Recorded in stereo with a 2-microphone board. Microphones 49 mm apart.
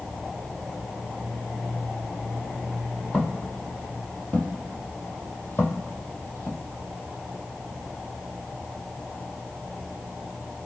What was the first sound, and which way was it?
Footsteps, 15° left (ahead or behind).